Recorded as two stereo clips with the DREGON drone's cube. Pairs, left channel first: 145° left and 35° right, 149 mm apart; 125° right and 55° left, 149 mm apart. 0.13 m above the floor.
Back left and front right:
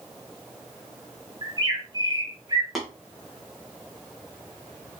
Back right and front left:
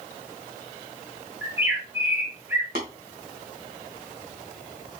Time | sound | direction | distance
1.4 | a bird | 5° right | 1.7 m
2.8 | tapping | 55° left | 2.5 m